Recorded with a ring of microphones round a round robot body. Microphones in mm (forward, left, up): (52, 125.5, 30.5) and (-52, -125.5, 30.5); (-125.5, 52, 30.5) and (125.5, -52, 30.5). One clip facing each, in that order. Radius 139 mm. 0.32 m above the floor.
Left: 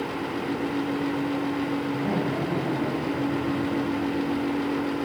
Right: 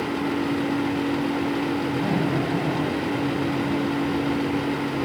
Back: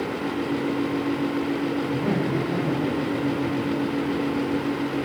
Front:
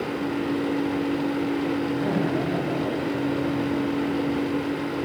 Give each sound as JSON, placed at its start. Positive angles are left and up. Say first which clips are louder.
{"t": 1.9, "sound": "laughter", "louder": "right 3 dB, even", "azimuth_deg": -120, "distance_m": 7.5}